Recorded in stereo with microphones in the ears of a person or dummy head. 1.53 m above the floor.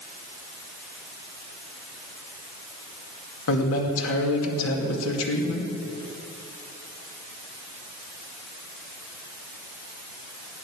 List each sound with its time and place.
3.5 s a man speaking: 75° left (ahead or behind), 2 m